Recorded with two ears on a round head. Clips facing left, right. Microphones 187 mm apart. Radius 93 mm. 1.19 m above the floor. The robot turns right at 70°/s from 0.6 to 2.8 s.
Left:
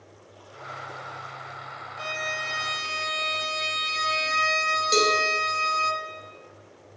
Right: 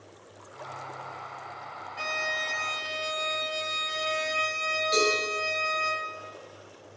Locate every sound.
2.0 s a violin: 30° right, 1.3 m; by 5.9 s 30° left, 1.3 m
4.9 s a cowbell: 60° left (ahead or behind), 2.5 m